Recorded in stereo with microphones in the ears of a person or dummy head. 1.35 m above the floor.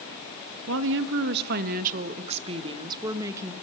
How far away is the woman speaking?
About 1.6 m.